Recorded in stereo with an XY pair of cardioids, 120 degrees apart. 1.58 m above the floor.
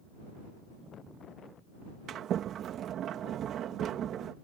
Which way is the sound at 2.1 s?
60° right.